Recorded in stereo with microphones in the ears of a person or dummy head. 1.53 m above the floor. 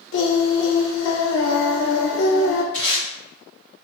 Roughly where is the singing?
Left.